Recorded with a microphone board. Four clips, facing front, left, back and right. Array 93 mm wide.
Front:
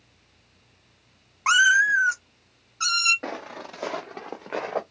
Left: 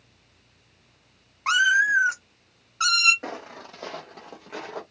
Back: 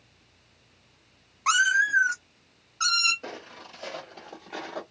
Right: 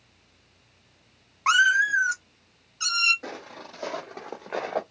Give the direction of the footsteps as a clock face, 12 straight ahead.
11 o'clock.